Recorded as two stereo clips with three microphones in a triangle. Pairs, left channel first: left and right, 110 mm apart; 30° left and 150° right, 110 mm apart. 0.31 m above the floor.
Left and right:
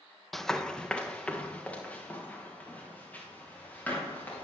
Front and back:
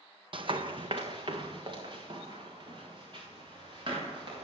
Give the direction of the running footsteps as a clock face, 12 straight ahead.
6 o'clock.